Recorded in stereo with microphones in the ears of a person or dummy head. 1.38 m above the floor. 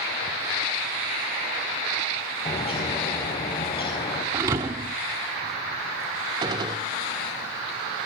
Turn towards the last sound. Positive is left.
turn(degrees=-25)  # may be behind; listen again after turning